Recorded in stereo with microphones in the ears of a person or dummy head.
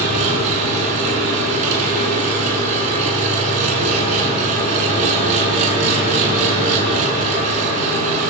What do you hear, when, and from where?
0.0 s an engine running: 35° right (ahead or behind), 9 m